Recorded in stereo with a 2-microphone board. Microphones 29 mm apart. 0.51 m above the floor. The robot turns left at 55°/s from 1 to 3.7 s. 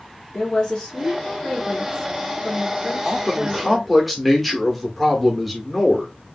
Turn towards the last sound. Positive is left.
turn(degrees=175)